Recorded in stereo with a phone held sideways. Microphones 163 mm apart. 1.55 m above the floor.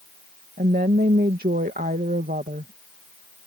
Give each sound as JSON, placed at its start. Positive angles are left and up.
{"t": 0.6, "sound": "a woman speaking", "side_deg": -75}